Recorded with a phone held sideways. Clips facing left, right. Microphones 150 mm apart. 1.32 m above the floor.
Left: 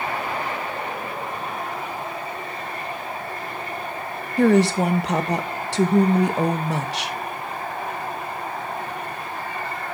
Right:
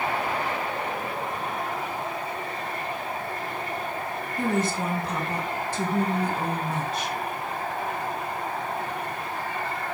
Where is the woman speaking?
80° left, 1.2 m.